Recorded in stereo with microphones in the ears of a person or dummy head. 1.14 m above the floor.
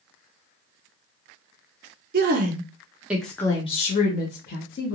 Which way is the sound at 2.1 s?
50° right (ahead or behind).